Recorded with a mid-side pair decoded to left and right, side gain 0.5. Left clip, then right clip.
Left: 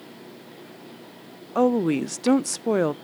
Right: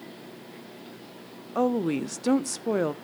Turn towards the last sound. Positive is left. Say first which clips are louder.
# left 4 dB
turn(degrees=25)